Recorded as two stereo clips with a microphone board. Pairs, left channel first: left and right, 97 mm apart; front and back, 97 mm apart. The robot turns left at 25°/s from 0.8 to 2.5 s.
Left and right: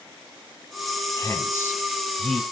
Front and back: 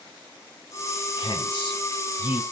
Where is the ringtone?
I don't hear a ringtone.